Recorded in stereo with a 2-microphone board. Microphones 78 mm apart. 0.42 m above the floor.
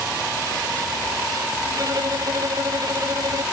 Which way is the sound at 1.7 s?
55° right (ahead or behind).